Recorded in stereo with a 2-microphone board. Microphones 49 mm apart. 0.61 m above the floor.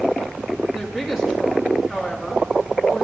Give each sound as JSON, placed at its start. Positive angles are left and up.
{"t": 0.7, "sound": "a woman speaking", "side_deg": -15, "distance_m": 6.0}